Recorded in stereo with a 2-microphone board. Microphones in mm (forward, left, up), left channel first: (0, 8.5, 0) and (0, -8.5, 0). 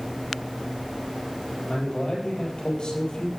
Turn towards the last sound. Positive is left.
turn(degrees=60)  # may be behind; listen again after turning